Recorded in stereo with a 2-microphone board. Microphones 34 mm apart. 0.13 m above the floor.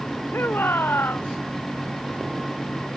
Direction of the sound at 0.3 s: 80° left.